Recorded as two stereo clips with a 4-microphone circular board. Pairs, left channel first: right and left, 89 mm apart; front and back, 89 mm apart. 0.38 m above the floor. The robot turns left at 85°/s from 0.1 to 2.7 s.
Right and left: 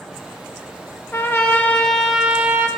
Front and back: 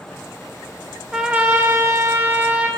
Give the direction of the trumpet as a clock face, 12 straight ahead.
4 o'clock.